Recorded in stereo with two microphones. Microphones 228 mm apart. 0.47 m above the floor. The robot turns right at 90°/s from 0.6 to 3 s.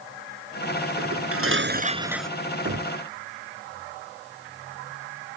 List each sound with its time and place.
1.0 s dishes clattering: 115° right; by 2.3 s 5° left
2.6 s knocking: 55° right (ahead or behind); by 3.0 s 80° right